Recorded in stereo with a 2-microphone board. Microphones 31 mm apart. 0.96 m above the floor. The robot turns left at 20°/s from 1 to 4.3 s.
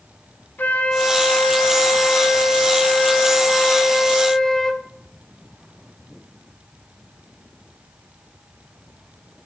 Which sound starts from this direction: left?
A flute, at 0.6 s.